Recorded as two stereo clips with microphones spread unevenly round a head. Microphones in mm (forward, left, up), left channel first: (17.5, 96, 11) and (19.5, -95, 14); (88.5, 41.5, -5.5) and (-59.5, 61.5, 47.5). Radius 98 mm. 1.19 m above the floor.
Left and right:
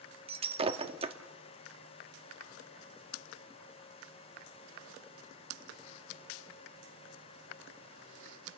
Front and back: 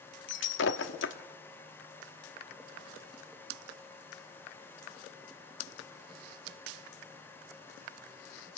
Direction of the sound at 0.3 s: 35° right.